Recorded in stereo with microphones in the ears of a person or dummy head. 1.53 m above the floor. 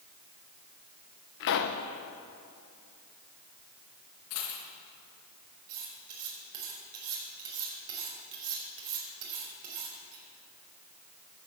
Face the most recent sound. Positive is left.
turn(degrees=-80)